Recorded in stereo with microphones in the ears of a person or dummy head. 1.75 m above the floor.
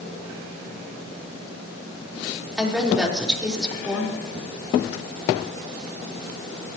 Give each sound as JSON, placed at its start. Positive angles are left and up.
{"t": 2.6, "sound": "a woman speaking", "side_deg": -5, "distance_m": 5.0}